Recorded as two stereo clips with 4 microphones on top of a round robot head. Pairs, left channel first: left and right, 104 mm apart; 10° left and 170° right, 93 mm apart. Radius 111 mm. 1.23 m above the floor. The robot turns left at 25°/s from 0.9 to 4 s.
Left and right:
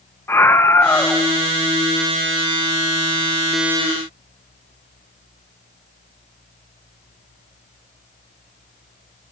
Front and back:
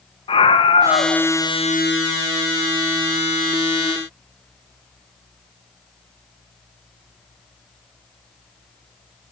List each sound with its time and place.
0.3 s a scream: 25° left, 1.6 m; by 1.2 s 15° left, 1.6 m